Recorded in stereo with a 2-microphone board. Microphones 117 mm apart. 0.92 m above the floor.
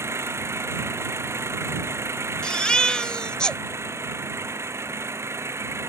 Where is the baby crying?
5° left (ahead or behind).